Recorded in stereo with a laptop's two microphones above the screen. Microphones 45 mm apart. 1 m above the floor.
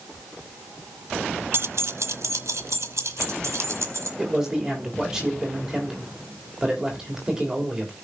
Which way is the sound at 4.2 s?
15° right (ahead or behind).